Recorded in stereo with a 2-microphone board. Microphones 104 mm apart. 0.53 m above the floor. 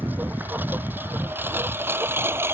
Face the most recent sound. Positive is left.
turn(degrees=-25)  # may be behind; listen again after turning